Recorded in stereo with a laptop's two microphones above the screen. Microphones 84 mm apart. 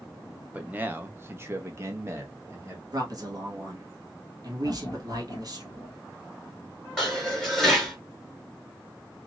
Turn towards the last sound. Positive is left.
turn(degrees=5)  # may be behind; listen again after turning